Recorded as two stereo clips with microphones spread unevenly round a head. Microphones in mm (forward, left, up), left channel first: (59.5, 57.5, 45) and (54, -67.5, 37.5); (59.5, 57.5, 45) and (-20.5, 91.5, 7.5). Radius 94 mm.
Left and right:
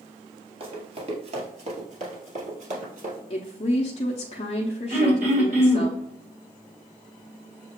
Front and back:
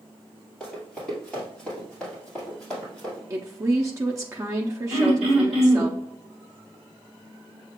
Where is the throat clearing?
135° right, 2 m.